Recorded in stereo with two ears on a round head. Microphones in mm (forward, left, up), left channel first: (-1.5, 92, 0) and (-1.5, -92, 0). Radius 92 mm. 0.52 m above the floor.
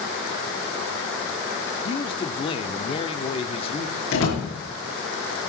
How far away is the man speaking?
About 0.9 m.